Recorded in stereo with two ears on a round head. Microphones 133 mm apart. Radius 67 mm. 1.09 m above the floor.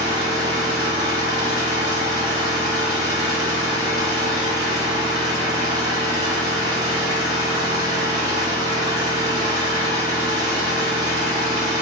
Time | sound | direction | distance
0.0 | an engine running | 25° right (ahead or behind) | 0.8 m